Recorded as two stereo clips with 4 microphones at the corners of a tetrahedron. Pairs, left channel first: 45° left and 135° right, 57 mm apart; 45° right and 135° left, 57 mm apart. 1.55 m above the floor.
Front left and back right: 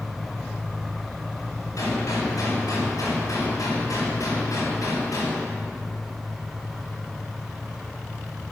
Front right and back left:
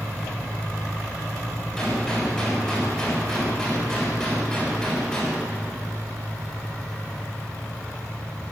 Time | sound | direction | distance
1.8 | a gunshot | 35° left | 6.5 m